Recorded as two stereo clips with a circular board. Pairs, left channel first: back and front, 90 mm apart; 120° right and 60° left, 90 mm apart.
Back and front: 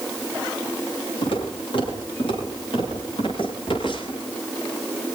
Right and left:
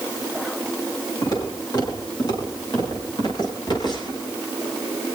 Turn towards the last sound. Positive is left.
turn(degrees=-155)